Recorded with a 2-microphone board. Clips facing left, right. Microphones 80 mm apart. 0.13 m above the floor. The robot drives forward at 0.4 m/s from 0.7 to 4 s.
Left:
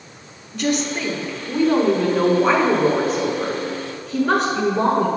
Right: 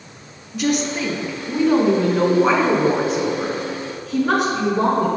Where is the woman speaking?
5° right (ahead or behind), 1.3 m.